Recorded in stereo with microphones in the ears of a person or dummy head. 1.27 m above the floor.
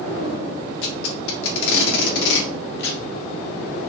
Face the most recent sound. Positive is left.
turn(degrees=70)  # may be behind; listen again after turning